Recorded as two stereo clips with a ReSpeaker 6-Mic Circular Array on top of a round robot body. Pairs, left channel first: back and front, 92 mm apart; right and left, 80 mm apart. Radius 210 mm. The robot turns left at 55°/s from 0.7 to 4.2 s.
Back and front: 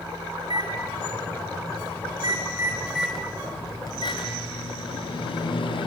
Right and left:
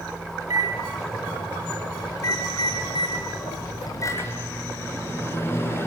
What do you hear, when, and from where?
0.4 s a microwave: 40° left, 6.5 m; by 5.9 s 150° right, 6.5 m